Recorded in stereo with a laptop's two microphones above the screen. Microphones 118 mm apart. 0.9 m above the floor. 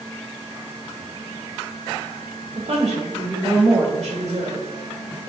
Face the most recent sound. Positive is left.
turn(degrees=-65)  # may be behind; listen again after turning